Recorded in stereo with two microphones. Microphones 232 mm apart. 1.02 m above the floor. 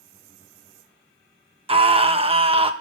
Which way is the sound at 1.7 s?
25° right (ahead or behind).